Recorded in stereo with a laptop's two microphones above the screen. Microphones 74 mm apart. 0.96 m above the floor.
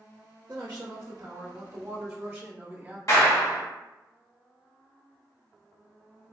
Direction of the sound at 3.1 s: 50° left (ahead or behind).